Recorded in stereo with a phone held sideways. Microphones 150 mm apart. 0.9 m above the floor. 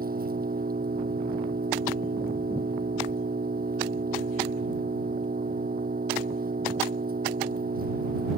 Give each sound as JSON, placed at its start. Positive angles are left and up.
{"t": 0.0, "sound": "an engine running", "side_deg": -70}